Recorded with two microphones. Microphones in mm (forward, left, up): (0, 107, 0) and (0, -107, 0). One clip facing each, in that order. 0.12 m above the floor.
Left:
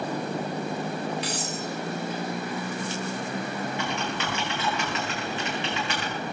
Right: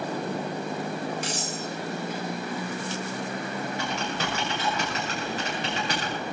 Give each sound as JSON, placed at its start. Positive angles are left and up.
{"t": 1.2, "sound": "cutlery clinking", "side_deg": -45, "distance_m": 4.5}
{"t": 3.8, "sound": "typing on a keyboard", "side_deg": -40, "distance_m": 9.0}